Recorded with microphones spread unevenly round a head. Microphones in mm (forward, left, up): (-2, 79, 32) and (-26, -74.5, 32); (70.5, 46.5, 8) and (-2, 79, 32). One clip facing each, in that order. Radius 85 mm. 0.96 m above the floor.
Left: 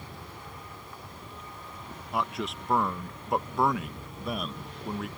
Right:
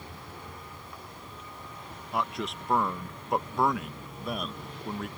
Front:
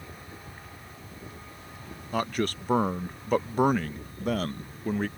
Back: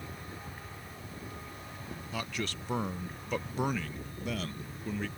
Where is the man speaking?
10° right.